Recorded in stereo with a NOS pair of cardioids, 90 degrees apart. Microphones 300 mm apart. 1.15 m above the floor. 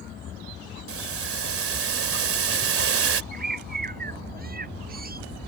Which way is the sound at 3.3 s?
30° right.